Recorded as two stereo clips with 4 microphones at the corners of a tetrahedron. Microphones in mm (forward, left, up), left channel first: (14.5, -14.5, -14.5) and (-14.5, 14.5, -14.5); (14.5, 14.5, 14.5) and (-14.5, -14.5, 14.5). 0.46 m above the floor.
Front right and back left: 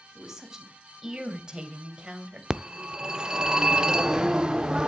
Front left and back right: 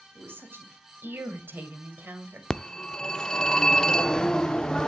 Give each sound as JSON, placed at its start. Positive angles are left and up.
{"t": 0.1, "sound": "a woman speaking", "azimuth_deg": -145, "distance_m": 3.5}
{"t": 2.5, "sound": "a phone ringing", "azimuth_deg": 90, "distance_m": 0.5}